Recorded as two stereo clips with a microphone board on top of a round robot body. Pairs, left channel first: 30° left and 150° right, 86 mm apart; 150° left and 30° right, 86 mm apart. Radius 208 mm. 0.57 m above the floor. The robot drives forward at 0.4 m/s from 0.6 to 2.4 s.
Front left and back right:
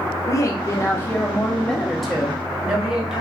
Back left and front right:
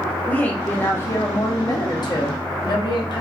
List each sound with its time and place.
0.3 s a woman speaking: 80° left, 1.0 m; by 3.2 s 130° left, 1.1 m